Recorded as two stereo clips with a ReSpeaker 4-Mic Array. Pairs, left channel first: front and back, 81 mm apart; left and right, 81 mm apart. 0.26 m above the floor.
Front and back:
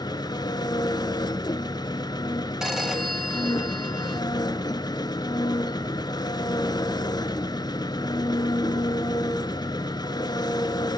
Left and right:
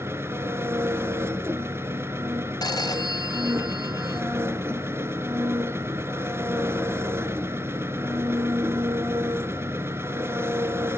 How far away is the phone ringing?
About 1.4 m.